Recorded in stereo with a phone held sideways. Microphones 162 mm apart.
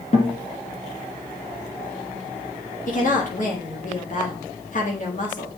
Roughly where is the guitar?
Left.